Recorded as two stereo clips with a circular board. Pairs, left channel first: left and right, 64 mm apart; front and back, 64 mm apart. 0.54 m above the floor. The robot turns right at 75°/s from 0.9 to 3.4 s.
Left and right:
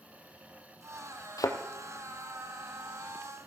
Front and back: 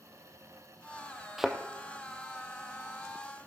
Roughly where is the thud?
Left.